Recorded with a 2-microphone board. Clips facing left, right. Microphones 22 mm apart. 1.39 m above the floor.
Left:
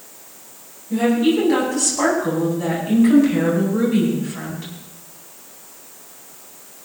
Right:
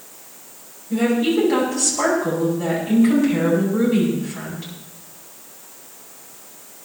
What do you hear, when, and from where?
0.9 s a woman speaking: 5° left (ahead or behind), 10 m